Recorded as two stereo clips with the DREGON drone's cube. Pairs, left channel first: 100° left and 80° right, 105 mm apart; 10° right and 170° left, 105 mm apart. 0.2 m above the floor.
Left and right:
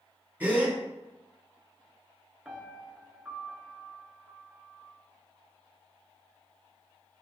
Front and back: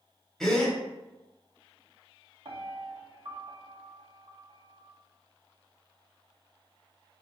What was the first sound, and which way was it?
A gasp, 85° right.